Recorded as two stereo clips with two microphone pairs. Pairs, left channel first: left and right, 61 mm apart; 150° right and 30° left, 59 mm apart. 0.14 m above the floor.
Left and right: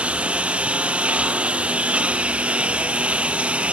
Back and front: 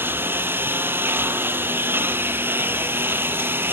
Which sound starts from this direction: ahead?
A lawn mower, at 0.0 s.